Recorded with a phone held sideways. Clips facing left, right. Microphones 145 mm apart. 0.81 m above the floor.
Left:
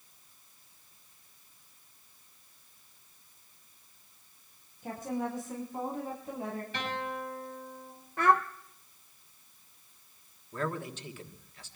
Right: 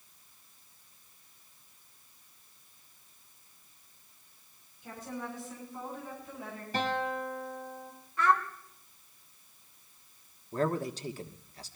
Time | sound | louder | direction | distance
4.8 | a woman speaking | left 6 dB | 50° left (ahead or behind) | 6 m
6.7 | a guitar | right 9 dB | 40° right (ahead or behind) | 6 m
8.2 | a child speaking | left 2 dB | 55° left (ahead or behind) | 0.7 m
10.5 | a man speaking | right 5 dB | 35° right (ahead or behind) | 1.2 m